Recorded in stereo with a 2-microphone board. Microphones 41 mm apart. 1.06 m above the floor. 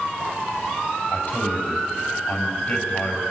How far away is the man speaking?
About 7 m.